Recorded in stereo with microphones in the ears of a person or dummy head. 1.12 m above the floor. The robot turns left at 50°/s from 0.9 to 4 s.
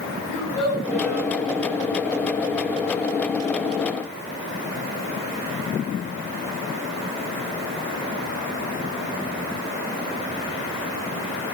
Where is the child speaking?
70° left (ahead or behind), 4 m; by 1.3 s 90° left, 4 m.